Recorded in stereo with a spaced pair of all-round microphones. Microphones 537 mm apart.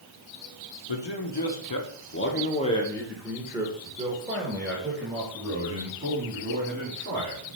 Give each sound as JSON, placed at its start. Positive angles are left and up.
{"t": 0.9, "sound": "a man speaking", "side_deg": 55, "distance_m": 1.1}